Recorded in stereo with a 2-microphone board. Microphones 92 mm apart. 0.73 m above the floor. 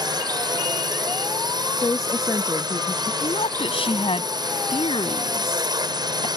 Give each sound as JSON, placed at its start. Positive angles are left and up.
{"t": 0.0, "sound": "a drone", "side_deg": -50}
{"t": 1.8, "sound": "a woman speaking", "side_deg": 40}
{"t": 3.2, "sound": "a woman speaking", "side_deg": 85}